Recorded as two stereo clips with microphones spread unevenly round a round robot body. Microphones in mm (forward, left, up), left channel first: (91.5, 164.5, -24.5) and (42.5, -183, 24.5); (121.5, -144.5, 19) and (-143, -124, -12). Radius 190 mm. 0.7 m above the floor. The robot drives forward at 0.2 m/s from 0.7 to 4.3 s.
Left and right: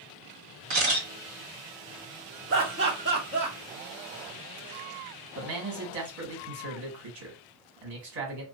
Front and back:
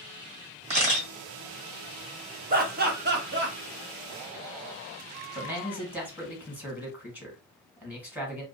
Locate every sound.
0.7 s a camera shutter: 135° right, 1.6 m; by 1.1 s 140° right, 1.7 m
2.5 s laughter: 150° right, 0.9 m; by 3.5 s 160° right, 1.1 m
5.3 s a man speaking: 105° right, 1.5 m